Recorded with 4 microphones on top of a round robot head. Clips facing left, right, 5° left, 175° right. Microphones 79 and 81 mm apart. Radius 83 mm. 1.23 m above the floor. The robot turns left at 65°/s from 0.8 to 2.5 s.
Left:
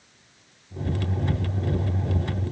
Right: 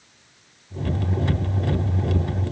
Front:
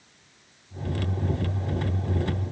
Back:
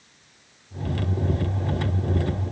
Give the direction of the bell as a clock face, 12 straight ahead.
No bell in this recording.